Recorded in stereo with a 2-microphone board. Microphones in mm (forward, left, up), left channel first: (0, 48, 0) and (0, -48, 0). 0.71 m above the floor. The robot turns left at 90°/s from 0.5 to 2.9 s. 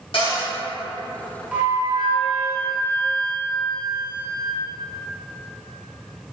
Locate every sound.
0.1 s a cupboard door: 65° left (ahead or behind), 1.3 m
1.5 s a flute: 10° right, 0.7 m; by 4.6 s 135° right, 0.7 m